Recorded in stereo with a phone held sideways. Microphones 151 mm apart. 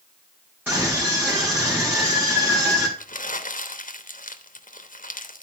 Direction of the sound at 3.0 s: 65° left (ahead or behind).